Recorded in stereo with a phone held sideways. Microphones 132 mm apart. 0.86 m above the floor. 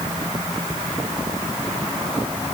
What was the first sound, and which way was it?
Only background noise.